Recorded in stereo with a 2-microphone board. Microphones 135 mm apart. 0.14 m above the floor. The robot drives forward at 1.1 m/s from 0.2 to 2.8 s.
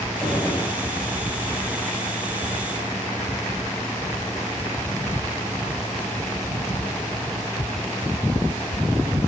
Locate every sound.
0.2 s a gunshot: 5° left (ahead or behind), 2.5 m